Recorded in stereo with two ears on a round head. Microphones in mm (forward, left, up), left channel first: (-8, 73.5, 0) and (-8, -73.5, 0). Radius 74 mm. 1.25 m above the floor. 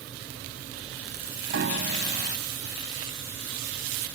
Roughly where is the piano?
Right.